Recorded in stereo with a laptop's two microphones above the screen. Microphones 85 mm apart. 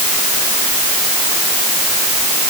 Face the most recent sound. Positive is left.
No sound to turn to.